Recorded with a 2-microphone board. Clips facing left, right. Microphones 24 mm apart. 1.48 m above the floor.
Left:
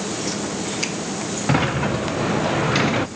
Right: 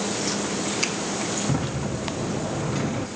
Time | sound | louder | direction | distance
1.5 | a sliding door | left 7 dB | 85° left | 0.5 m